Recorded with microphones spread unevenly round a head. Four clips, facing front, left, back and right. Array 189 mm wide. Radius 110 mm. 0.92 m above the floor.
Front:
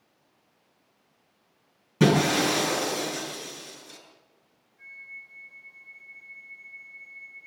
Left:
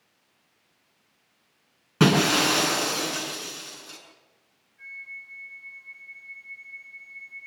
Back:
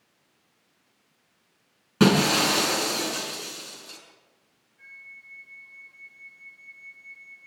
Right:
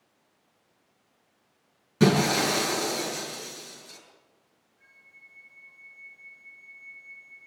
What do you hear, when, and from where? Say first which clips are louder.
2.0 s breaking glass: left 1 dB, back 1 dB; 130° left, 6.5 m
4.8 s a flute: left 14 dB, front 2 dB; 130° left, 9 m